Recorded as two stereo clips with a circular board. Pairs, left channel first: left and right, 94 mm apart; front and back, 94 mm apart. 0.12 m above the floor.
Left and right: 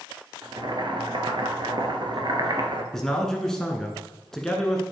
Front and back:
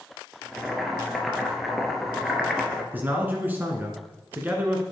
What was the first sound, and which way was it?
Boiling, 90° right.